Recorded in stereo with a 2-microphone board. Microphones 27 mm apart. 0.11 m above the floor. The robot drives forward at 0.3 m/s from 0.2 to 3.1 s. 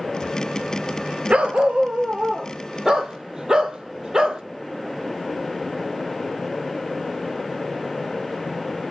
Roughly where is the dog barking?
Right.